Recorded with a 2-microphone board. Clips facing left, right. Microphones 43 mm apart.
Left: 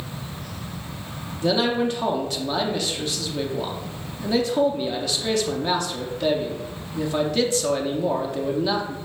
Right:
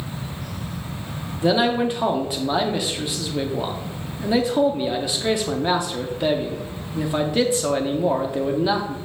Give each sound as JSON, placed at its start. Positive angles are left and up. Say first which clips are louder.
{"t": 1.4, "sound": "a man speaking", "louder": "right 2 dB", "side_deg": -15, "distance_m": 0.6}